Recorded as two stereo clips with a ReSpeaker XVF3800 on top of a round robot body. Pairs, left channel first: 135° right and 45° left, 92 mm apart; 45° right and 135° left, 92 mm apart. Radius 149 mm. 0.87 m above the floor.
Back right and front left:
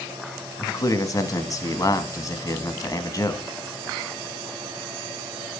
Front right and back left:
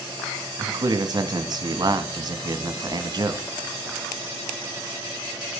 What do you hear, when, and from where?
0.6 s a man speaking: 175° left, 1.6 m